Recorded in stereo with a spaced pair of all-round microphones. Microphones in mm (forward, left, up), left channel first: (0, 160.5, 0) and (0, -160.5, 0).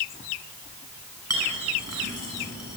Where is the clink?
50° right (ahead or behind), 7 m.